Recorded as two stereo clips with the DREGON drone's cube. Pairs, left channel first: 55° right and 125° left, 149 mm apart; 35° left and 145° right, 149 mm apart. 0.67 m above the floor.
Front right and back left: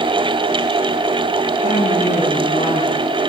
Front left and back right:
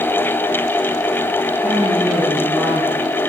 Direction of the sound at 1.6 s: 70° right.